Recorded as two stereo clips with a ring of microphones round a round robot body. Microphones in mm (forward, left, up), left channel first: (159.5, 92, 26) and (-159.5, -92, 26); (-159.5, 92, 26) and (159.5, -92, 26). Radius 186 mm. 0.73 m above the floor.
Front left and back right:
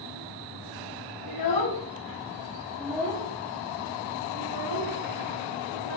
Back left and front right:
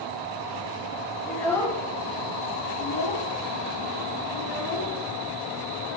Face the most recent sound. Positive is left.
turn(degrees=-175)